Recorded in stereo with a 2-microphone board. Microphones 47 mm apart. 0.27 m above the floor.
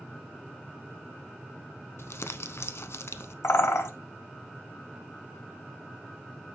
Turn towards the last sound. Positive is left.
turn(degrees=75)  # may be behind; listen again after turning